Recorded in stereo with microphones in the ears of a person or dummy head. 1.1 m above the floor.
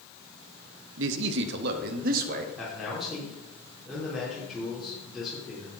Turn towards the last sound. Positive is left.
turn(degrees=0)  # may be behind; listen again after turning